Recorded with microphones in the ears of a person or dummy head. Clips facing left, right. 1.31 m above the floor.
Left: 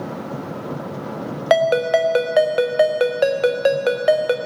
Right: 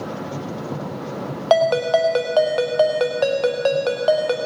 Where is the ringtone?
25° left (ahead or behind), 0.6 m.